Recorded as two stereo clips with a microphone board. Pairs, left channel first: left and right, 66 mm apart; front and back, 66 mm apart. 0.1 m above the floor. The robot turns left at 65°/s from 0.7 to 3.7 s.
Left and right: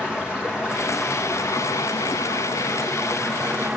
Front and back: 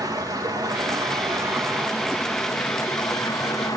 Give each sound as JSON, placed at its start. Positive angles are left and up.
{"t": 0.0, "sound": "running water", "azimuth_deg": -170, "distance_m": 2.5}